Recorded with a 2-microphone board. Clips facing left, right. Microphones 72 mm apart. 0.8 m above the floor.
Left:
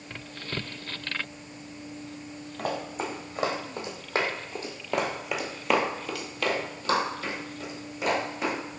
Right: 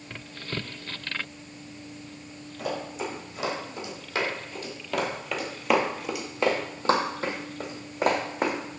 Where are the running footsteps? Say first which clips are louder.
Even; 50° left (ahead or behind), 2.0 m; by 8.6 s 50° right (ahead or behind), 1.9 m.